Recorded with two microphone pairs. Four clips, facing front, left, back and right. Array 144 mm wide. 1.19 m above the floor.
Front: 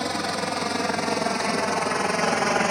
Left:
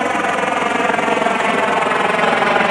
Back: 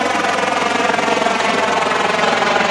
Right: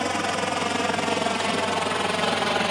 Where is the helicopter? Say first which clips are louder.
Left 8 dB, back 10 dB; 145° left; by 2.7 s 130° left.